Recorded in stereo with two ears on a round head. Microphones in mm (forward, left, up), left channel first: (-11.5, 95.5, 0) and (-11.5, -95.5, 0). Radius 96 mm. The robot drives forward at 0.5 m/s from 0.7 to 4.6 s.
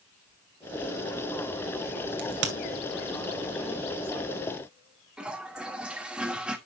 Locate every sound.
2.2 s a crack: 60° right (ahead or behind), 2 m; by 2.5 s 55° right (ahead or behind), 2 m
5.2 s a toilet flushing: 5° right (ahead or behind), 1.1 m